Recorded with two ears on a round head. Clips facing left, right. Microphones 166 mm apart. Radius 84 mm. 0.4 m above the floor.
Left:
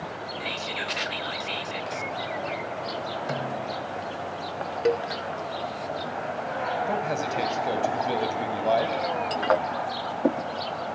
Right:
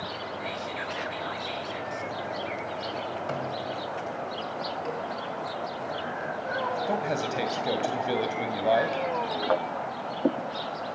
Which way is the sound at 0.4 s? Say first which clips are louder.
Left 1 dB; 35° left (ahead or behind).